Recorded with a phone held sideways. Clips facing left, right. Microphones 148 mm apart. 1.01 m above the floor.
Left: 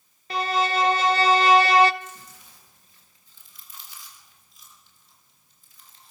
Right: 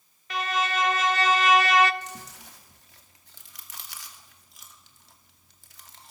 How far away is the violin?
About 0.9 m.